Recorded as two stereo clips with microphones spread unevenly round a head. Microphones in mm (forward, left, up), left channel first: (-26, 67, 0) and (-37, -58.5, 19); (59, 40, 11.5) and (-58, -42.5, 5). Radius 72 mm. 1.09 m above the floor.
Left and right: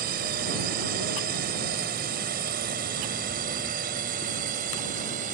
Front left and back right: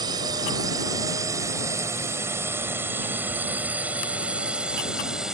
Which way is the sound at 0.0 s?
85° right.